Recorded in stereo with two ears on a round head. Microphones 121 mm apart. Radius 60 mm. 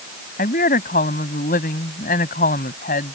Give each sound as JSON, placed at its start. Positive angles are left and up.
{"t": 0.4, "sound": "a woman speaking", "side_deg": 70}